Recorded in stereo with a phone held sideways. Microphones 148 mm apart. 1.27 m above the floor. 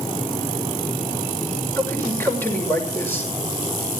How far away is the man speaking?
About 6.5 m.